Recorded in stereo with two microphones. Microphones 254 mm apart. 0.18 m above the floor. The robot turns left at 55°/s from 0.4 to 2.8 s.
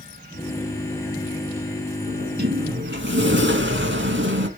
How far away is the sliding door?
About 1.1 m.